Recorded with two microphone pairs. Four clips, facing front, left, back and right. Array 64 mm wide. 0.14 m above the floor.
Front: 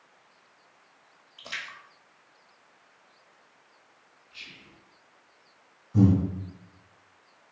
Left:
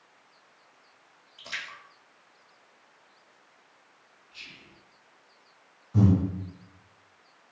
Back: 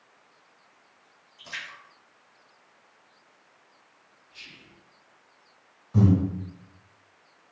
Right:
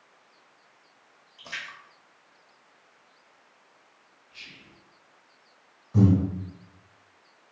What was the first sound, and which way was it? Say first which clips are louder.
A splash: even, front 1 dB; 10° left.